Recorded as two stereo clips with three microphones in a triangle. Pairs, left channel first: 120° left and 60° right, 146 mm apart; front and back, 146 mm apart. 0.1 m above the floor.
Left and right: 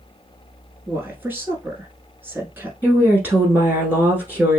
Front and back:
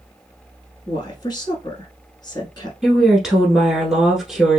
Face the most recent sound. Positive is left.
turn(degrees=-105)